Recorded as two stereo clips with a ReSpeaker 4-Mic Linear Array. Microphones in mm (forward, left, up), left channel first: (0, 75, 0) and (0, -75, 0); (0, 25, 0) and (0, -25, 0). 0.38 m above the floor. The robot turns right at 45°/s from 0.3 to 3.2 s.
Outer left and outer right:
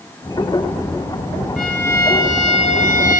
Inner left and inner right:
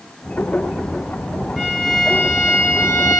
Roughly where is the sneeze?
I don't hear a sneeze.